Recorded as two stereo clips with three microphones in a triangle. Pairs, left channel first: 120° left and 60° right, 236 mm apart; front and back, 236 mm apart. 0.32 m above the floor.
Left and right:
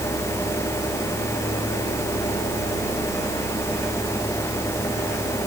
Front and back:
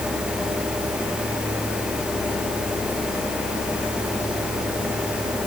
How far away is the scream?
No scream in this recording.